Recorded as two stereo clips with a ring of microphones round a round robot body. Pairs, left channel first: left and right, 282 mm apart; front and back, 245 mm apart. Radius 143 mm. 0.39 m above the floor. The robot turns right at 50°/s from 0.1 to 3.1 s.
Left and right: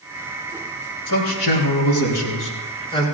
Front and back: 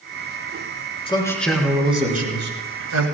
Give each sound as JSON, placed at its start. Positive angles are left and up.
{"t": 1.1, "sound": "a man speaking", "azimuth_deg": 70, "distance_m": 5.0}